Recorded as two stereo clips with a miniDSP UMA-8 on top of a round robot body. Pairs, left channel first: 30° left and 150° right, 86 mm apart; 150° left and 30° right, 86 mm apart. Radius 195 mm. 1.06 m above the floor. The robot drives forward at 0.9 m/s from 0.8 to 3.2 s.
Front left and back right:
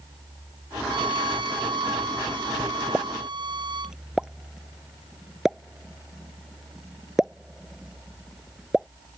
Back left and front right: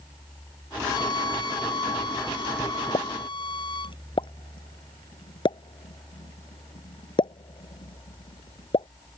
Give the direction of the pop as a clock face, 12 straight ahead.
8 o'clock.